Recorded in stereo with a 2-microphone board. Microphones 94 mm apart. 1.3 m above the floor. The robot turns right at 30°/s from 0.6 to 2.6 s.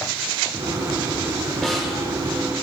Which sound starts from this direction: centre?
A snare drum, at 1.6 s.